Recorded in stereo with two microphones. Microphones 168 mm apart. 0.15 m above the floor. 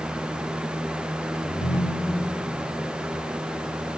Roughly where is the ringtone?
Left.